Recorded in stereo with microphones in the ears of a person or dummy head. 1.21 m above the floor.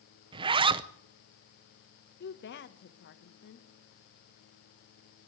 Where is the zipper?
25° right (ahead or behind), 0.6 m.